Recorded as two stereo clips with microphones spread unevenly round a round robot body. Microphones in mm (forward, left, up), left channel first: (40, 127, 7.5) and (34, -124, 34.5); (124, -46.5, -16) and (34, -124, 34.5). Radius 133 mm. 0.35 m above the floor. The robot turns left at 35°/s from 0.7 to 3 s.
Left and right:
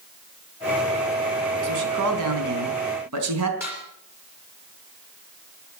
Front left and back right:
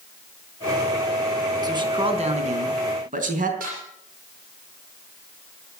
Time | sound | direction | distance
1.6 | a man speaking | 75° right | 4 m
3.6 | dishes clattering | 175° right | 5 m